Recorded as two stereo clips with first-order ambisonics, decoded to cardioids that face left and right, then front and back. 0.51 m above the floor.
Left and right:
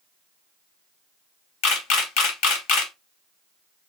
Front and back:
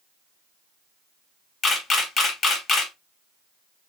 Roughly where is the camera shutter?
Ahead left.